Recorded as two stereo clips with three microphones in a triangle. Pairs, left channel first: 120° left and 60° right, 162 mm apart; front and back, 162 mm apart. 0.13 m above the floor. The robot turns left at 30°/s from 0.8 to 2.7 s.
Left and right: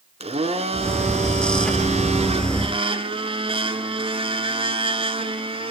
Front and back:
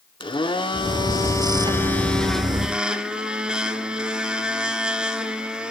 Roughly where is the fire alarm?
I don't hear a fire alarm.